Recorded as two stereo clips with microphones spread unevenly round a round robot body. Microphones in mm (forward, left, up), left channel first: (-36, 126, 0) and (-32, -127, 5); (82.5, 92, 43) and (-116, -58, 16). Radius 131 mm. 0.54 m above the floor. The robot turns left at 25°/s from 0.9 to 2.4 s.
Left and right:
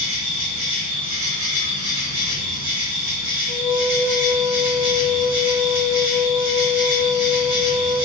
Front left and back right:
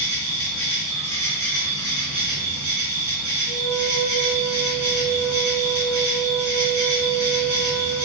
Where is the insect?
25° right, 1.3 m; by 8.0 s 60° right, 1.3 m.